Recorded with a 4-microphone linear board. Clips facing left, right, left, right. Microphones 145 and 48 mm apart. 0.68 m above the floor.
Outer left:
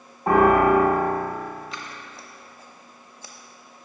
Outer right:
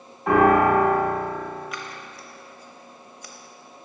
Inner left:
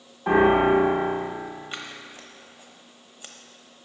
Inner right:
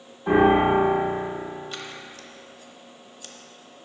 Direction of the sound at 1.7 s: 30° left (ahead or behind).